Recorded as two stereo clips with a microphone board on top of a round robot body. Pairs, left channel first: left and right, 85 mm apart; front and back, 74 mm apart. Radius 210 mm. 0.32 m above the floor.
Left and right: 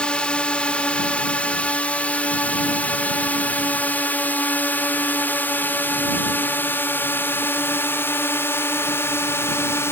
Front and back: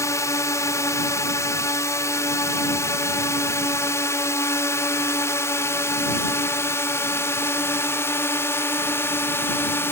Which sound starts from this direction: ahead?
A drone, at 0.0 s.